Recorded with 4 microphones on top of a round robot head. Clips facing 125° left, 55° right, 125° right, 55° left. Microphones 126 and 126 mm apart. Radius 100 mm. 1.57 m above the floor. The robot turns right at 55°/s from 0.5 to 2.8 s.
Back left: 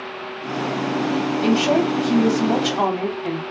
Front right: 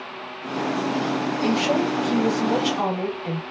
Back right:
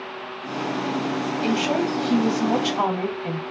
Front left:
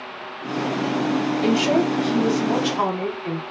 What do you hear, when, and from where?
1.4 s a woman speaking: 100° left, 2.5 m; by 3.4 s 175° left, 2.5 m